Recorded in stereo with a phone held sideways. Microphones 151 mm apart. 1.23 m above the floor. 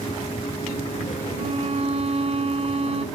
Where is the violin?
45° right (ahead or behind).